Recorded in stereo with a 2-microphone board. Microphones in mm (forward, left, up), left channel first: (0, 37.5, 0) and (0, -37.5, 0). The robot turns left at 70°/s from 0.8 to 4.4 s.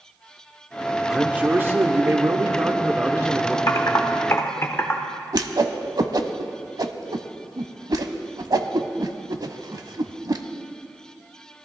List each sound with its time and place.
1.1 s a man speaking: 10° right, 1.0 m; by 3.6 s straight behind, 1.0 m
3.7 s typing on a keyboard: 45° left (ahead or behind), 1.1 m; by 5.0 s 35° left (ahead or behind), 1.1 m
5.3 s a whoosh: 65° right (ahead or behind), 0.7 m